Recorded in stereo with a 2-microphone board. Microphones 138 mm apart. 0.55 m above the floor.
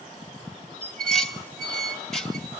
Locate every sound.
0.8 s dishes clattering: centre (ahead or behind), 2.5 m